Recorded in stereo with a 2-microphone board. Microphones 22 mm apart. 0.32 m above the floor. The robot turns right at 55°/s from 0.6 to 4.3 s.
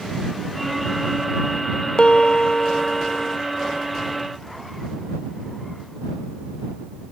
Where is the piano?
85° left; by 3.4 s 160° left.